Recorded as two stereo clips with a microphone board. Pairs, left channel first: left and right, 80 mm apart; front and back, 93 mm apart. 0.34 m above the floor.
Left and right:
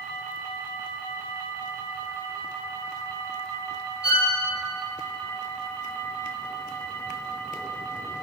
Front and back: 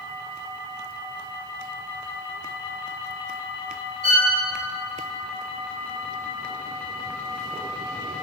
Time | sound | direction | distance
4.0 | a violin | 130° left | 5.5 m